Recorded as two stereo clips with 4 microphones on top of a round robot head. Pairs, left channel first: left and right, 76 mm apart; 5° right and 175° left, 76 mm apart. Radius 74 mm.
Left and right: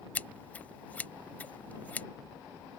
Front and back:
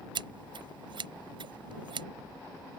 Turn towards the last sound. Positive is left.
turn(degrees=160)